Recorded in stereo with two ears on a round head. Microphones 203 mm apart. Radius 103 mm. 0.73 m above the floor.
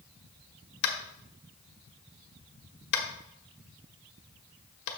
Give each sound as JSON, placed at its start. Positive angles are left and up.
{"t": 0.8, "sound": "tapping", "side_deg": 60, "distance_m": 1.4}